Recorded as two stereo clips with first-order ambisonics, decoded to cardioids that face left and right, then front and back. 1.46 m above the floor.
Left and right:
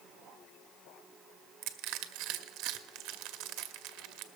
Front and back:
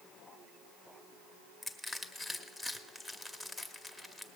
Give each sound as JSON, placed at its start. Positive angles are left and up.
{"t": 1.6, "sound": "crushing", "azimuth_deg": -90, "distance_m": 0.7}